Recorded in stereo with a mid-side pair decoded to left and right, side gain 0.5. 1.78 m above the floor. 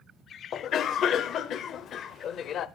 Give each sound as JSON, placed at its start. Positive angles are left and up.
{"t": 0.5, "sound": "a cough", "azimuth_deg": 55, "distance_m": 1.0}